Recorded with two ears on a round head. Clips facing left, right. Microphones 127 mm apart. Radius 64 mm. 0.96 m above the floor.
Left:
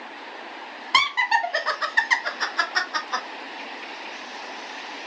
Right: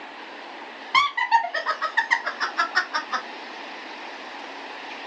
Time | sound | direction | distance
0.9 | laughter | 50° left (ahead or behind) | 1.1 m